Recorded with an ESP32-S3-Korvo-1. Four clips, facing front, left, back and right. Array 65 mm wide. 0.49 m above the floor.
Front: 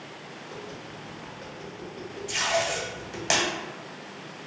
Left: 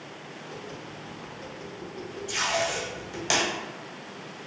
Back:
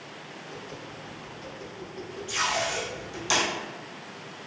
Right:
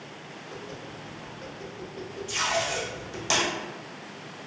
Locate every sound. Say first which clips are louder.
0.5 s tapping: right 1 dB, front 1 dB; 15° right, 1.3 m
2.3 s tape being pulled: even, front 1 dB; 25° left, 1.4 m